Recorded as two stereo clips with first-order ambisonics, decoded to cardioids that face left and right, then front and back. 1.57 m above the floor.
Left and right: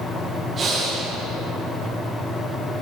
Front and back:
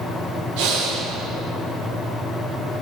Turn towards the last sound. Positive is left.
turn(degrees=-160)